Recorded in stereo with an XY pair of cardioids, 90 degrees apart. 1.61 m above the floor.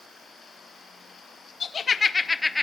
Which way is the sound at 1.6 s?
50° left.